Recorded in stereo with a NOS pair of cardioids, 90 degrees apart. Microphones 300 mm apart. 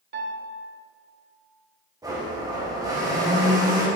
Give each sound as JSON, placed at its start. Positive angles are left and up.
{"t": 0.1, "sound": "a piano", "azimuth_deg": -35, "distance_m": 1.2}
{"t": 2.0, "sound": "a blender", "azimuth_deg": -10, "distance_m": 2.0}